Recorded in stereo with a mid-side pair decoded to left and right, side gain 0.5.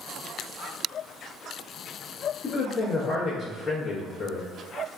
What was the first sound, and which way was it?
A man speaking, 30° left.